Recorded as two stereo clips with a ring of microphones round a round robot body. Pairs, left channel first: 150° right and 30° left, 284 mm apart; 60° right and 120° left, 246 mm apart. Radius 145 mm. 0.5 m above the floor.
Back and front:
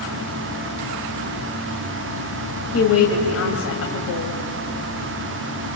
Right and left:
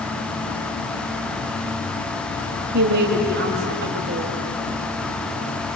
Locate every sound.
2.7 s a woman speaking: 170° left, 3 m